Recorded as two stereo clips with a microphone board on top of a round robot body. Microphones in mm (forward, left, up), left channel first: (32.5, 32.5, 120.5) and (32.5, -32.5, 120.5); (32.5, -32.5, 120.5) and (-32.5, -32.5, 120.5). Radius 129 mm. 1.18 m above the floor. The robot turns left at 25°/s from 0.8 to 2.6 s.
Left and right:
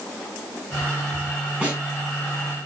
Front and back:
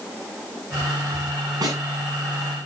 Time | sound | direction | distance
1.6 | a snare drum | 160° right | 8.5 m